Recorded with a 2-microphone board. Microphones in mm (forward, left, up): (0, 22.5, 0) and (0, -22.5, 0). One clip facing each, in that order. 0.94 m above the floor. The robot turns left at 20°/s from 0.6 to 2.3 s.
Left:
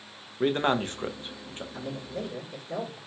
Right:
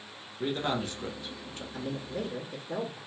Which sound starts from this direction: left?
A man speaking, at 0.4 s.